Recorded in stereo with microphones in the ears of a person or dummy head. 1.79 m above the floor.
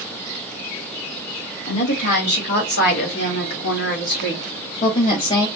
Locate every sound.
1.7 s a woman speaking: 40° left (ahead or behind), 1.5 m; by 5.5 s 30° left (ahead or behind), 1.0 m